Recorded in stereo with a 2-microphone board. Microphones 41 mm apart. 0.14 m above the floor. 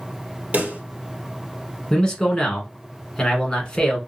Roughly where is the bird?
I don't hear a bird.